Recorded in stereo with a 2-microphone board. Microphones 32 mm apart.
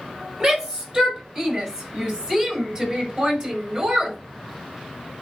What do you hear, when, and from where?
0.4 s a shout: 30° right (ahead or behind), 6.5 m